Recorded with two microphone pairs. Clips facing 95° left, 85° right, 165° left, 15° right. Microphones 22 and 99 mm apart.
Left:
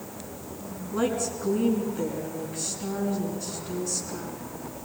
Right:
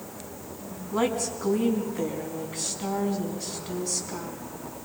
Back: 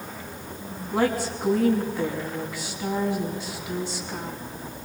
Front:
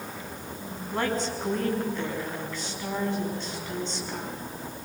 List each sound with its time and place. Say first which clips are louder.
0.9 s a woman speaking: right 1 dB, back 4 dB; 115° right, 5 m